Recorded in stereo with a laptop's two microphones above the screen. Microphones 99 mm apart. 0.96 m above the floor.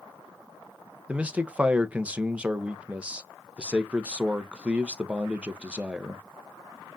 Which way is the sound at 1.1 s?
10° right (ahead or behind).